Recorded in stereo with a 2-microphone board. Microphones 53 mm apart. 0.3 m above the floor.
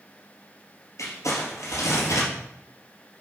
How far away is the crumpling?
About 4.5 m.